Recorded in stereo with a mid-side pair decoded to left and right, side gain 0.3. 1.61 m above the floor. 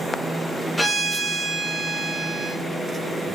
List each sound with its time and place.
0.8 s a violin: 20° left, 1.0 m